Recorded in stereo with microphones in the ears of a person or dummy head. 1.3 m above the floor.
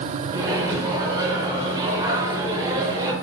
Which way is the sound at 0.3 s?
15° right (ahead or behind).